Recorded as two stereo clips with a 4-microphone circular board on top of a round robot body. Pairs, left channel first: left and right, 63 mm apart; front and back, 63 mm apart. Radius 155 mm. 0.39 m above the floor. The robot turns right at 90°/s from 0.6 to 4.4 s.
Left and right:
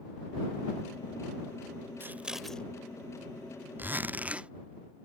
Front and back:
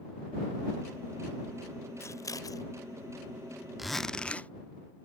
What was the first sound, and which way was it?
Scissors, 40° right.